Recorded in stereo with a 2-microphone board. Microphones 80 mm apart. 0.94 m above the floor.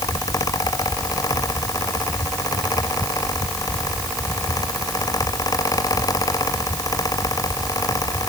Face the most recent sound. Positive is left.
No sound to turn to.